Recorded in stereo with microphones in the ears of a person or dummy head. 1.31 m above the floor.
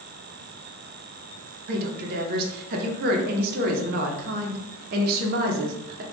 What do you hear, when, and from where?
1.7 s a woman speaking: 45° right (ahead or behind), 0.6 m